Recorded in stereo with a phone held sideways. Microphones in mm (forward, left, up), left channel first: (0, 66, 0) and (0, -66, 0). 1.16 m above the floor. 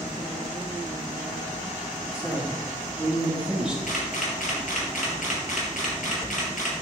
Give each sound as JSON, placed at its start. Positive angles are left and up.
{"t": 2.1, "sound": "a woman speaking", "side_deg": -5, "distance_m": 3.5}
{"t": 3.9, "sound": "a camera shutter", "side_deg": 70, "distance_m": 3.5}